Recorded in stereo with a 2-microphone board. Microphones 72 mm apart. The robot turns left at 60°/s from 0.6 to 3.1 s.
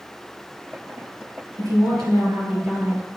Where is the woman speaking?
65° right, 3 m; by 3.2 s 160° right, 3 m.